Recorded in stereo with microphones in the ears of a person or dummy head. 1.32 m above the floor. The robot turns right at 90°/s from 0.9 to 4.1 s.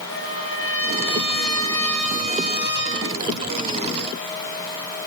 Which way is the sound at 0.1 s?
80° left.